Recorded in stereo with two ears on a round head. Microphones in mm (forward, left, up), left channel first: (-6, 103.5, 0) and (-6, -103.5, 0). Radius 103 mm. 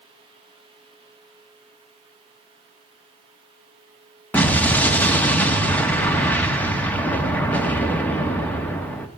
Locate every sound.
4.3 s an explosion: 5° left (ahead or behind), 1.1 m